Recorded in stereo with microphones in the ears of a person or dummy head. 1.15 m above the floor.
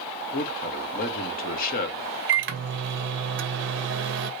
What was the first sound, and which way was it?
A man speaking, 40° left (ahead or behind).